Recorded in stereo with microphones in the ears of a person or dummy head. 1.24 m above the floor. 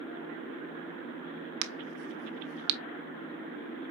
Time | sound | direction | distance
1.6 | a crack | 65° right (ahead or behind) | 0.7 m